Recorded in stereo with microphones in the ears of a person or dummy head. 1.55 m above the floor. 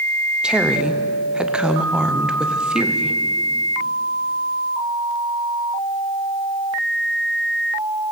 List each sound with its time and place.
0.4 s a woman speaking: centre (ahead or behind), 0.8 m